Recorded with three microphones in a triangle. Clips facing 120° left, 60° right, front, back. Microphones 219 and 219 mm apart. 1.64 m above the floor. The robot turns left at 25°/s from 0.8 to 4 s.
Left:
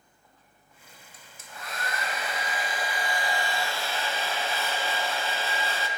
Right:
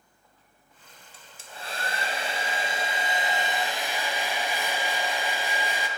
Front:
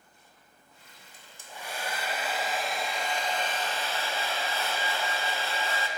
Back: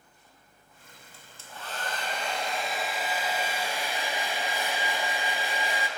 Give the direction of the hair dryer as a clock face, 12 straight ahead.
2 o'clock.